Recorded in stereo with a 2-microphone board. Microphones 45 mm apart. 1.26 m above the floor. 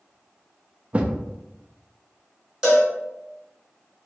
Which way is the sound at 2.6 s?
10° right (ahead or behind).